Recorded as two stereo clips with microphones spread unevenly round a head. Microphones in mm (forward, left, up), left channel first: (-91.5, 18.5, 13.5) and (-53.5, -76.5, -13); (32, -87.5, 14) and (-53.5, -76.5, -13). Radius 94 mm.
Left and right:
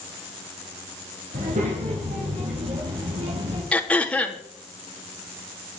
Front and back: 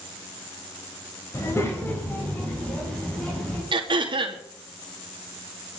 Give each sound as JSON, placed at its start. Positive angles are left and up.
{"t": 1.3, "sound": "a child speaking", "azimuth_deg": -60, "distance_m": 3.0}
{"t": 3.7, "sound": "throat clearing", "azimuth_deg": -170, "distance_m": 2.5}